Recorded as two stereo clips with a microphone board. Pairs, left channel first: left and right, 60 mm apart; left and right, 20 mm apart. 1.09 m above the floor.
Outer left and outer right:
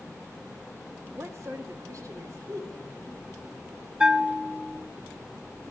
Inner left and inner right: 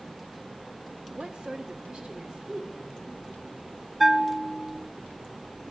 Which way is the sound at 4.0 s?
20° right (ahead or behind).